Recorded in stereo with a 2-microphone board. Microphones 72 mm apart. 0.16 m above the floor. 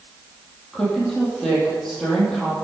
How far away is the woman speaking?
About 5 m.